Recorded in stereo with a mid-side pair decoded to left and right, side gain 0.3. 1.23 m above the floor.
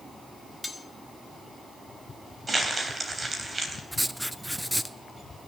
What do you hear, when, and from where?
0.6 s cutlery clinking: 20° left, 1.4 m
2.5 s crumpling: 40° right, 3 m
3.9 s writing: straight ahead, 0.7 m